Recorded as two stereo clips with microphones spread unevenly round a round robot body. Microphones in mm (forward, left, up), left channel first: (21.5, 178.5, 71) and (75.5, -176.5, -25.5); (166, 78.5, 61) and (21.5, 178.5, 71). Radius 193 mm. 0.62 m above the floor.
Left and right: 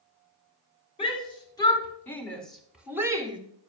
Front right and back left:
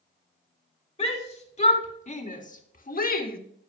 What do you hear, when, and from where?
1.0 s a shout: 20° left, 3 m; by 3.4 s 15° right, 1.6 m